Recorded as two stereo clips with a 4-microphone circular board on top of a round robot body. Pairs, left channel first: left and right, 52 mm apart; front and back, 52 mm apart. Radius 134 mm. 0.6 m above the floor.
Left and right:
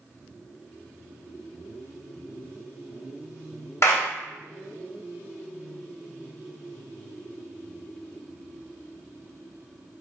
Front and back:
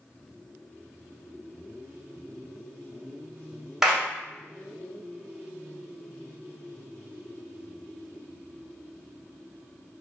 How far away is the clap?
About 1.4 m.